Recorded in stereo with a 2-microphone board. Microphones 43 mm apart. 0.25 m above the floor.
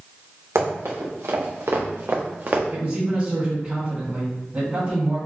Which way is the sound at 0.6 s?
75° right (ahead or behind).